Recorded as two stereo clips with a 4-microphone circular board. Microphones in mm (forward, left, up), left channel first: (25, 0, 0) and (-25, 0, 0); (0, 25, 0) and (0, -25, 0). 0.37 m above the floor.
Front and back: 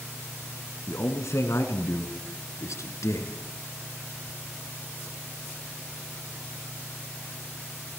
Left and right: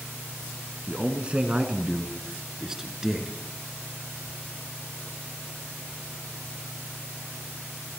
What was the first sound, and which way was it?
A man speaking, 25° right.